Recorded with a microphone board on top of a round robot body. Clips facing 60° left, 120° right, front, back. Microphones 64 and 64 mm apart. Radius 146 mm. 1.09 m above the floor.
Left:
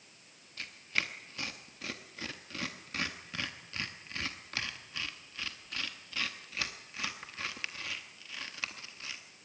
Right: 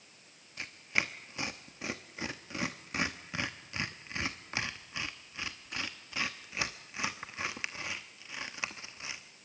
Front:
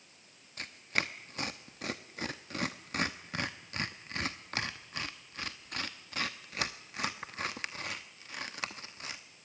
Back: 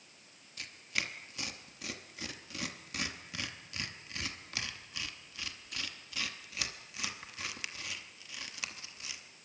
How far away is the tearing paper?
About 0.8 m.